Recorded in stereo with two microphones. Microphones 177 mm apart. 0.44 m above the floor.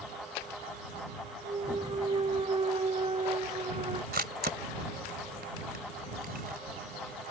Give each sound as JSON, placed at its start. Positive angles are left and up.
{"t": 1.4, "sound": "a clunk", "side_deg": -35}
{"t": 4.1, "sound": "a camera shutter", "side_deg": -65}